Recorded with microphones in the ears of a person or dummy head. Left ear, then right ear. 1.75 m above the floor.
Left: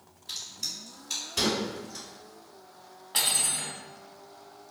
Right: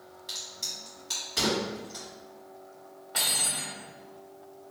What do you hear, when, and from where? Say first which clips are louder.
0.3 s a crack: even; 30° right (ahead or behind), 1.6 m
3.1 s cutlery clinking: left 1 dB; 25° left (ahead or behind), 1.2 m